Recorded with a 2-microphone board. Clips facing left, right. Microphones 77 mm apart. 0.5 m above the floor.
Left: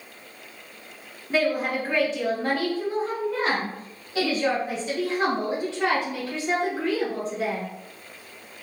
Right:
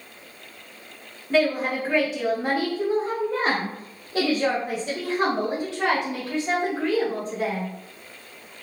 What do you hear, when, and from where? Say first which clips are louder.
1.3 s a woman speaking: right 2 dB; 10° left (ahead or behind), 1.3 m; by 7.7 s 45° right (ahead or behind), 3 m